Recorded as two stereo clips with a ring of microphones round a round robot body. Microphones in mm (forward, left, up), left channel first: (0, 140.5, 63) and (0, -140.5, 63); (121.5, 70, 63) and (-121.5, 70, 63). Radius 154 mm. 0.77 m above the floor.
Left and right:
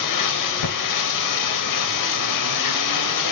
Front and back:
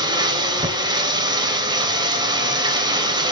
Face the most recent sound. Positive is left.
turn(degrees=105)